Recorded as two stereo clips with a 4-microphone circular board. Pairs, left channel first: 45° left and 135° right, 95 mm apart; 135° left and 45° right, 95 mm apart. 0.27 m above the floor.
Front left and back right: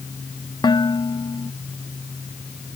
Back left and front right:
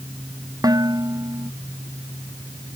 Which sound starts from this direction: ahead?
Dishes clattering, at 0.6 s.